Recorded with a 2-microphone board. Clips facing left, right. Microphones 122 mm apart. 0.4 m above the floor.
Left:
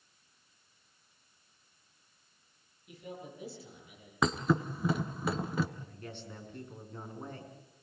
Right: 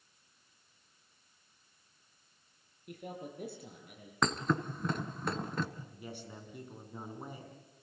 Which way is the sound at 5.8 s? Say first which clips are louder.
Even; 10° right (ahead or behind).